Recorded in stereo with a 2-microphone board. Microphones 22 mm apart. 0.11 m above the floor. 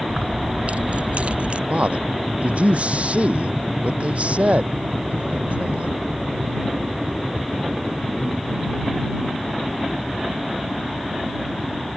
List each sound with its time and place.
0.1 s keys jangling: 70° right (ahead or behind); by 1.6 s 60° right (ahead or behind)
1.7 s a man speaking: 65° right (ahead or behind)